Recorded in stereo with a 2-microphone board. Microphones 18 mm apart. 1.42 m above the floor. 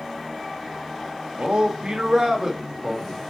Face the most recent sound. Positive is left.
turn(degrees=-10)  # may be behind; listen again after turning